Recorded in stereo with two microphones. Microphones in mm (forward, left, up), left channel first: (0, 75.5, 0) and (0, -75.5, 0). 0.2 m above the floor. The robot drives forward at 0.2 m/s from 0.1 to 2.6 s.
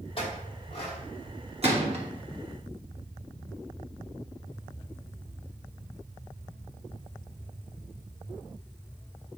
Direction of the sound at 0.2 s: 40° left (ahead or behind).